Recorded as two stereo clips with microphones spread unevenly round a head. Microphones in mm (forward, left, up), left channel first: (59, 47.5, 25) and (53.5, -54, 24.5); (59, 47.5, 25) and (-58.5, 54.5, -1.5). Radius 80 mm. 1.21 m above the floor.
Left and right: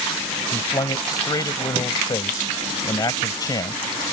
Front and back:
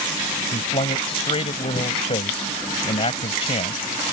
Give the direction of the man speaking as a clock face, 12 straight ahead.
11 o'clock.